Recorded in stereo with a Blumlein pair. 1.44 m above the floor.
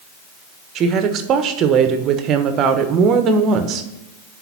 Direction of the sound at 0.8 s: 30° right.